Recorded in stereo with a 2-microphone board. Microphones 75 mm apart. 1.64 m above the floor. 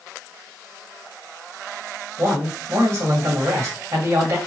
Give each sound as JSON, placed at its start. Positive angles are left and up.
{"t": 2.2, "sound": "a man speaking", "side_deg": -45, "distance_m": 2.0}